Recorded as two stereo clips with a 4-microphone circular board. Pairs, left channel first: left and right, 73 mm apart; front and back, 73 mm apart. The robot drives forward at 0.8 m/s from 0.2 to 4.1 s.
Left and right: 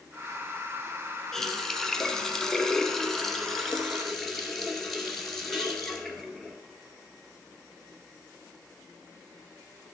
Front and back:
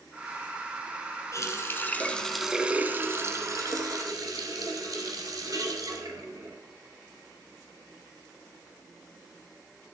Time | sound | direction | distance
1.3 | a running tap | 5° left | 1.2 m